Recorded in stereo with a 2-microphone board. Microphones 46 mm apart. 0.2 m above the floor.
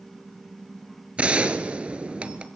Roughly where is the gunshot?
Right.